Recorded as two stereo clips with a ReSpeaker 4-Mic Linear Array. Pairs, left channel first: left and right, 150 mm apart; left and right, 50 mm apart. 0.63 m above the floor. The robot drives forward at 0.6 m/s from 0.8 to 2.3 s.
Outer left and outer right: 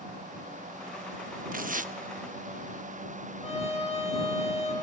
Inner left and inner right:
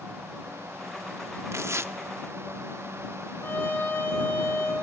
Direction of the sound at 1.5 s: 65° right (ahead or behind).